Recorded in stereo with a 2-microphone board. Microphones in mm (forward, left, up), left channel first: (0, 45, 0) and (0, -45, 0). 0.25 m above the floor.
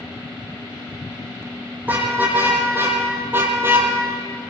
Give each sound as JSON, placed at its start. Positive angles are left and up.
{"t": 1.8, "sound": "a car horn", "side_deg": -20, "distance_m": 6.5}